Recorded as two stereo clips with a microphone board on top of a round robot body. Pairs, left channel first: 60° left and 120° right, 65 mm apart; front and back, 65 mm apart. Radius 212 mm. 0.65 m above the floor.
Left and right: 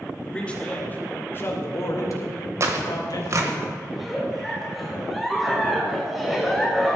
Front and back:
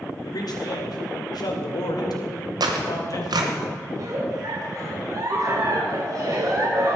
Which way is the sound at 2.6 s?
165° right.